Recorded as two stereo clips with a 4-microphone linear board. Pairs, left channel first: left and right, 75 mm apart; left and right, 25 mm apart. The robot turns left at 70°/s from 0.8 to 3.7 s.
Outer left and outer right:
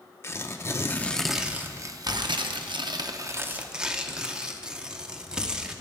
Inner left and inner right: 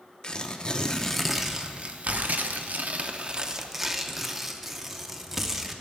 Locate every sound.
0.2 s tearing paper: 35° left, 0.6 m; by 5.8 s 170° right, 0.6 m